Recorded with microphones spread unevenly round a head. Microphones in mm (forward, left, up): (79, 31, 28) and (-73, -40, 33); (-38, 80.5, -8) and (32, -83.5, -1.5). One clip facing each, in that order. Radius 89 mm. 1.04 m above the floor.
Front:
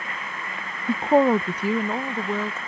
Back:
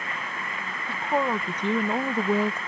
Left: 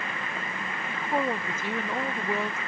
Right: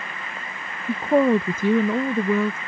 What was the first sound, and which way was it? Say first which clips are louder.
A woman speaking: front 9 dB, right 12 dB; 10° right.